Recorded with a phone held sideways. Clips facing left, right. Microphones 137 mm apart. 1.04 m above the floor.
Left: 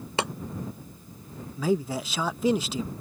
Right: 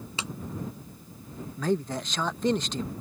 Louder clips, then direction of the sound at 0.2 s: Left 9 dB; 65° left (ahead or behind).